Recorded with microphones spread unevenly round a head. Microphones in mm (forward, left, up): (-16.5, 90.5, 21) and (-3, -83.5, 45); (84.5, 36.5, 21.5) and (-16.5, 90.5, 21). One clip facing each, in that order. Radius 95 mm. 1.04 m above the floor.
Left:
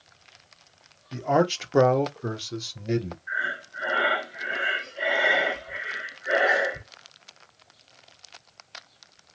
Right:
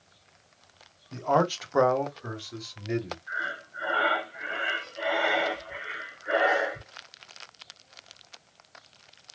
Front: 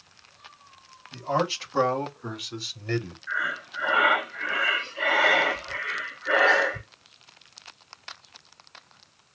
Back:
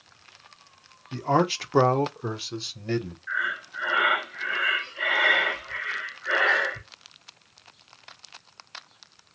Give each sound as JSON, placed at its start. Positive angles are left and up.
{"t": 1.1, "sound": "a man speaking", "azimuth_deg": 165, "distance_m": 0.9}
{"t": 3.3, "sound": "breathing", "azimuth_deg": 25, "distance_m": 0.6}